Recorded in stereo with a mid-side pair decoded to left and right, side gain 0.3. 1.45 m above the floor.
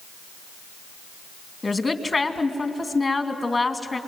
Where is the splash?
No splash in this recording.